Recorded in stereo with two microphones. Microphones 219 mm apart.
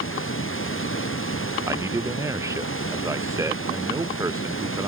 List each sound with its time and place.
0.0 s running water: 85° left
1.7 s a man speaking: 15° right (ahead or behind)